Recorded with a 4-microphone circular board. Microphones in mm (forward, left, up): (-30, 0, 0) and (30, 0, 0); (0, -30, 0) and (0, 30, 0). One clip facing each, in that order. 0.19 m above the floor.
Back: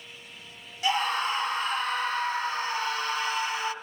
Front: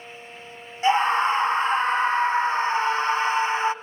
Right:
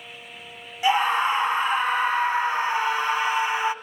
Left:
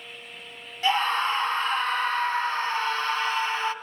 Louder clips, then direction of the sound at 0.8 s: Front 7 dB, right 3 dB; 25° right.